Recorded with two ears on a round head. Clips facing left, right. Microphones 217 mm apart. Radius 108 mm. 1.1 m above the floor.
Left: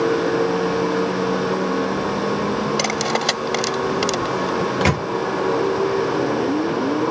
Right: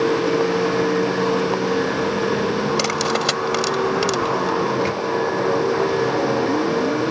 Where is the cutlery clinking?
10° right (ahead or behind).